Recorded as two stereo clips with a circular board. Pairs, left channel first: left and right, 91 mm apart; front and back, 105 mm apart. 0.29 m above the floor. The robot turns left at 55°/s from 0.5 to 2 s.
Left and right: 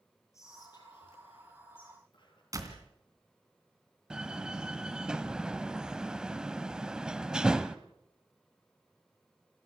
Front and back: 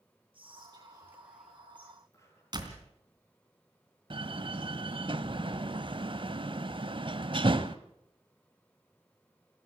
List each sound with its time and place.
0.3 s whispering: 145° left, 7.5 m; by 2.4 s 65° left, 7.5 m
2.5 s a door slam: 140° right, 2.5 m
4.1 s a door slam: 170° right, 0.9 m